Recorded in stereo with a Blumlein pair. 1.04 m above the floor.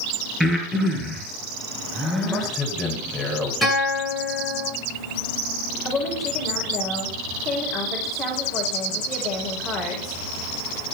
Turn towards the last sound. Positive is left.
turn(degrees=30)